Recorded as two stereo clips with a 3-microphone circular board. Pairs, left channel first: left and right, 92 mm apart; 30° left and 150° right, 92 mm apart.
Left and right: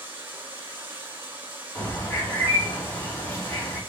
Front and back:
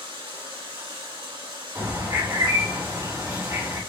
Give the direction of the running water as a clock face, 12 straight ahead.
5 o'clock.